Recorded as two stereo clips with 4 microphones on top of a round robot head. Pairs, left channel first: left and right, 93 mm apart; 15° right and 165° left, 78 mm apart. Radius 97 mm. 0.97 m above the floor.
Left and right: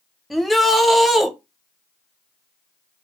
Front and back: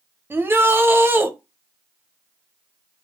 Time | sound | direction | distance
0.3 | a shout | straight behind | 0.9 m